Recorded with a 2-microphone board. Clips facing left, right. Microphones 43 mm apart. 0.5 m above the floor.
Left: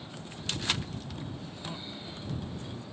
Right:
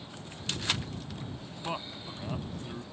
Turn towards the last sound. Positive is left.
turn(degrees=-70)  # may be behind; listen again after turning